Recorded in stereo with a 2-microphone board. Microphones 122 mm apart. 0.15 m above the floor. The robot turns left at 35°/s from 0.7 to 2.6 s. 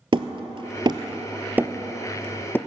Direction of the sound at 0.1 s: 45° right (ahead or behind).